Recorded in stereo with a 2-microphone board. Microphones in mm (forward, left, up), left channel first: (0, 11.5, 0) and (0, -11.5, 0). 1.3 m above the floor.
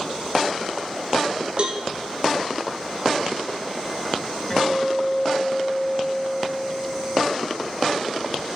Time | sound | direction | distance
1.6 | a cowbell | 45° right (ahead or behind) | 0.8 m
4.5 | a guitar | 10° left (ahead or behind) | 1.9 m